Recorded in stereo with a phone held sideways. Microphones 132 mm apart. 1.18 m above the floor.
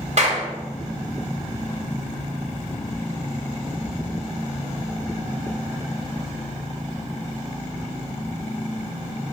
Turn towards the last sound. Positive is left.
turn(degrees=-55)  # may be behind; listen again after turning